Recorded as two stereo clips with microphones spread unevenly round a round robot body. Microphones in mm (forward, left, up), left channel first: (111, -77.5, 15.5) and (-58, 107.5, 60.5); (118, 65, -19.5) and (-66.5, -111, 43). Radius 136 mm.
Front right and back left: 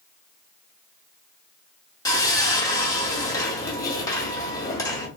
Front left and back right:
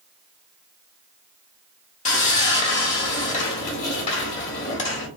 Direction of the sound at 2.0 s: 15° left.